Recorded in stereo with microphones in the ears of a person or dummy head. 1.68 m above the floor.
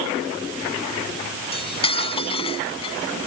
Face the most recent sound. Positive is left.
turn(degrees=30)  # may be behind; listen again after turning